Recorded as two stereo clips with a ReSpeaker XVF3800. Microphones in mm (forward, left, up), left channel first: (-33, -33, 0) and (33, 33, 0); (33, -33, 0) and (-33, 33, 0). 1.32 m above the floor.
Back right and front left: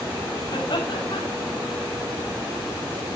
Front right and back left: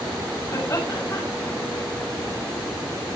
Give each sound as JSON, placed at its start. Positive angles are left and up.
{"t": 0.5, "sound": "laughter", "azimuth_deg": -100, "distance_m": 6.0}